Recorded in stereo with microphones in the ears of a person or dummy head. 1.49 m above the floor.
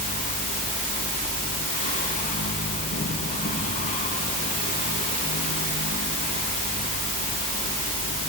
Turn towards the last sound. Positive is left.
turn(degrees=40)  # may be behind; listen again after turning